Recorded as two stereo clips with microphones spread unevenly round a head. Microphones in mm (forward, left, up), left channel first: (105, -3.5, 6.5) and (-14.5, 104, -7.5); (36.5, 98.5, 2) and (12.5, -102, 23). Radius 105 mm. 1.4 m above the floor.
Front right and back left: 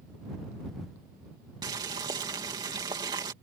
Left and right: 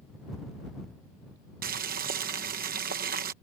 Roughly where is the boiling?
Behind right.